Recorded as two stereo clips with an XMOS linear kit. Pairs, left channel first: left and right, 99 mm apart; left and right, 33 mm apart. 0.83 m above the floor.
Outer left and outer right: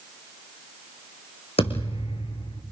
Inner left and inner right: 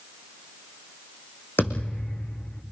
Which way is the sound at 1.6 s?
75° left (ahead or behind).